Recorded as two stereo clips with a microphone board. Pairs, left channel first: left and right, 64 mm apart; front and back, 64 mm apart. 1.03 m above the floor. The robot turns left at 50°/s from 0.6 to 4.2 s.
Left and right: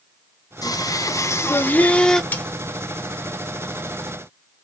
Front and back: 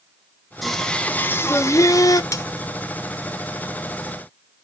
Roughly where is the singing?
Left.